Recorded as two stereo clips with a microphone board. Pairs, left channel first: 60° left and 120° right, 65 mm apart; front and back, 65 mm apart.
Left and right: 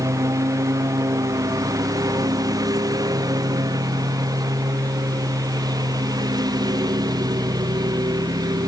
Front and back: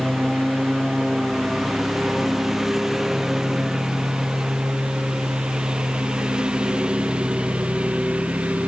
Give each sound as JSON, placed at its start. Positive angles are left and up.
{"t": 0.0, "sound": "a lawn mower", "azimuth_deg": -90}